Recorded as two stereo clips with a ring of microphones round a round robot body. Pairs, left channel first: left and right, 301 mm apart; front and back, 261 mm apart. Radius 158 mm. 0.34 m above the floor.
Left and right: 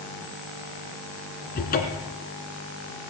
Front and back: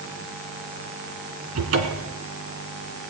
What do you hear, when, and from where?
1.6 s a cupboard door: 150° left, 1.7 m